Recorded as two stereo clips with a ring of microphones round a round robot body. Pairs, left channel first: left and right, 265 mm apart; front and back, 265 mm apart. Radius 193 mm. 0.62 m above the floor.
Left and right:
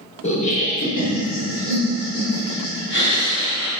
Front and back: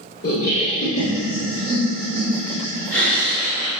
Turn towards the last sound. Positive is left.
turn(degrees=90)